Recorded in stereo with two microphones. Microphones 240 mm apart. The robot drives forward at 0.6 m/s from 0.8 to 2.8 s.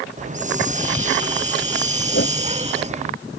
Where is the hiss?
30° right (ahead or behind); by 3.1 s 25° right (ahead or behind).